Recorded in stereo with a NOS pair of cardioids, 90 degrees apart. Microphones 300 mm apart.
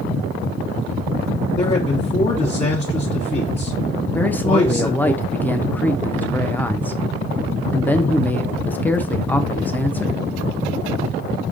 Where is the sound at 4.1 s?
5° left, 0.7 m.